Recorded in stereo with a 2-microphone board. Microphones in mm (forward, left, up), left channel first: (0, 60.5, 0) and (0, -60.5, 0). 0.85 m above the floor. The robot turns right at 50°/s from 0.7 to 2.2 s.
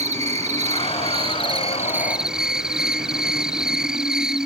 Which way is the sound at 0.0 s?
80° right.